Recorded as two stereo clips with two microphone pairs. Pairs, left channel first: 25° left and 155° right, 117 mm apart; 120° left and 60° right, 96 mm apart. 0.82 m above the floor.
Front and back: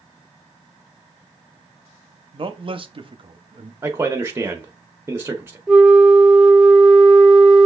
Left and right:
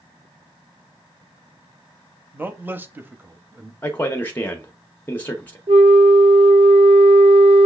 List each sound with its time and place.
2.3 s a man speaking: 130° right, 0.8 m
3.8 s a man speaking: 165° left, 0.8 m
5.7 s a flute: 75° right, 0.5 m